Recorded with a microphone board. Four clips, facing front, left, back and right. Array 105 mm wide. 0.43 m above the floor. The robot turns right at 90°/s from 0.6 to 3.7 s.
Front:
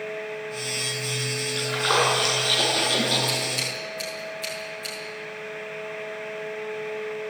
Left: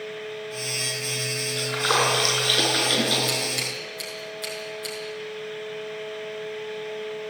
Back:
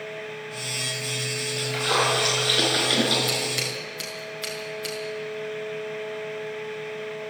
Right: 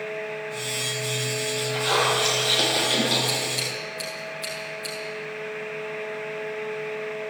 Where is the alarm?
No alarm in this recording.